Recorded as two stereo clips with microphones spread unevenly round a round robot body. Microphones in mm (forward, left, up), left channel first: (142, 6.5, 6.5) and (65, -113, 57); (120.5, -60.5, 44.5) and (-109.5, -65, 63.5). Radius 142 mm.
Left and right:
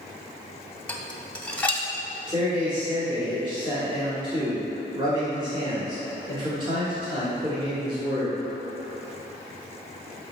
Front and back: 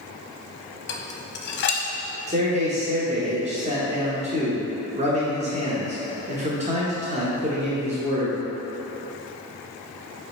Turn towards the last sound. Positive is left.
turn(degrees=175)